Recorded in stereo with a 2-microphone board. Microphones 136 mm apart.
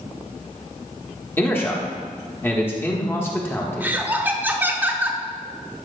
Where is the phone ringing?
No phone ringing in this recording.